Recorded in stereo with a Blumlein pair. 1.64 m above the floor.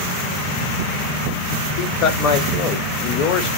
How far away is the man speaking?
About 0.8 m.